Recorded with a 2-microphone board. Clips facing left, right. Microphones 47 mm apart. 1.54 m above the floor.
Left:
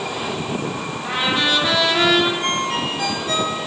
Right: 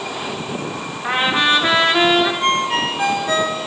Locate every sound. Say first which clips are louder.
1.0 s a trumpet: right 4 dB; 40° right (ahead or behind), 5.5 m
2.4 s a ringtone: right 4 dB; 30° right (ahead or behind), 3.5 m